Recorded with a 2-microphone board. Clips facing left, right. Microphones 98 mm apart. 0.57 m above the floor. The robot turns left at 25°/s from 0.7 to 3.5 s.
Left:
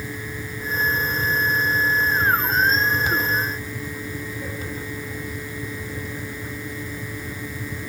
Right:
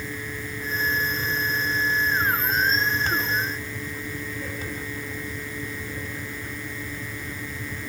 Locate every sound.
Only background noise.